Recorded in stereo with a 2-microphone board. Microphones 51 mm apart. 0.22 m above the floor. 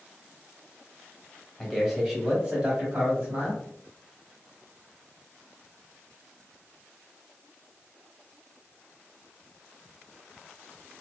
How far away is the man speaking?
About 1.1 m.